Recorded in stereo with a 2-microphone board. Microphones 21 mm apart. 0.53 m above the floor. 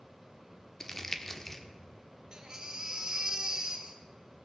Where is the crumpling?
15° left (ahead or behind), 1.0 m.